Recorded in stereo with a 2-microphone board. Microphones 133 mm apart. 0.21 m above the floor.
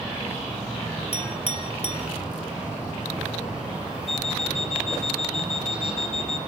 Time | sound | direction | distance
1.1 | a clink | 50° left (ahead or behind) | 3 m
4.1 | an alarm clock | 50° left (ahead or behind) | 1.5 m